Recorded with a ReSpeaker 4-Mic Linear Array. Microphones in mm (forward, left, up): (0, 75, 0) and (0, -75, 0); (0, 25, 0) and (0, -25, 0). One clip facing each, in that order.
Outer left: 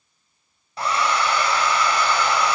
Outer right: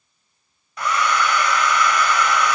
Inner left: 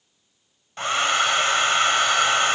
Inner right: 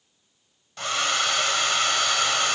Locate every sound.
0.8 s a hair dryer: 30° left (ahead or behind), 0.6 m